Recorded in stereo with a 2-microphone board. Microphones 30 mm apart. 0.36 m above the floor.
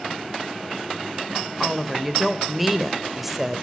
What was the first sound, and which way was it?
A woman speaking, 5° right (ahead or behind).